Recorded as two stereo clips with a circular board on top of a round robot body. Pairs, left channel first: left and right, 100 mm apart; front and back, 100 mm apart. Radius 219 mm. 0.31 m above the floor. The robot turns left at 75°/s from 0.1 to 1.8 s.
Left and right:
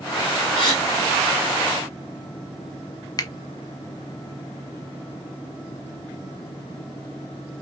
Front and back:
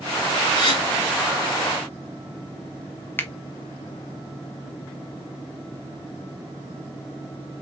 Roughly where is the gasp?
Ahead left.